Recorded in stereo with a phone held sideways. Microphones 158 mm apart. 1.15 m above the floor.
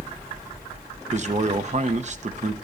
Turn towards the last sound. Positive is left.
turn(degrees=-50)  # may be behind; listen again after turning